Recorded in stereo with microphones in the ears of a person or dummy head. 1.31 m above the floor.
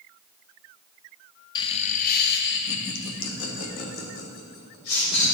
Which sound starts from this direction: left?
Laughter, at 1.6 s.